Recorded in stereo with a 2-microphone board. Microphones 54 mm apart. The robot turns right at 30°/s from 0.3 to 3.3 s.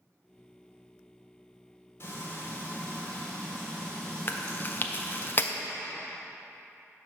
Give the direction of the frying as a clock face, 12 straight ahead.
8 o'clock.